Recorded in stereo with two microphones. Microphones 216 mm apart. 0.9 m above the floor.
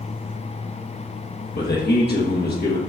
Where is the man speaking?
50° left (ahead or behind), 1.2 m.